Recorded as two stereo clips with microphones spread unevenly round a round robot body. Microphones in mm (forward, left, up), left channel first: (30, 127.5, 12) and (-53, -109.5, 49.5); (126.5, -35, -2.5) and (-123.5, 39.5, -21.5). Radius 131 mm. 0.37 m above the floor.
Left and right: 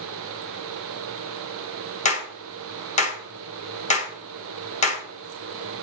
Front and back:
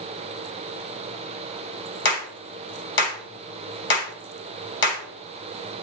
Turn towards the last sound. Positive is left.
turn(degrees=25)